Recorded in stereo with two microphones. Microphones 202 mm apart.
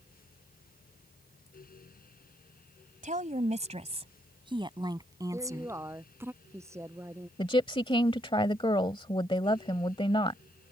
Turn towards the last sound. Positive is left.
turn(degrees=25)  # may be behind; listen again after turning